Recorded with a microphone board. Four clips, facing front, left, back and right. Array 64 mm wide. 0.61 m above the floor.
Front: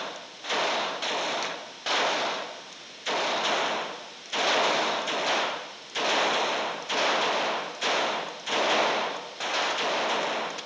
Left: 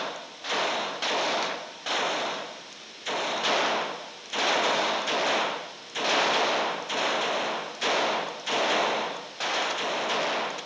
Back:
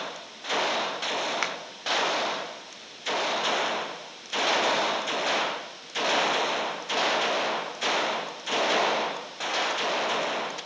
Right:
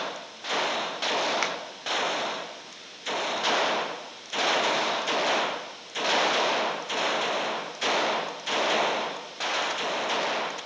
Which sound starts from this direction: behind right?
A finger snap, at 1.4 s.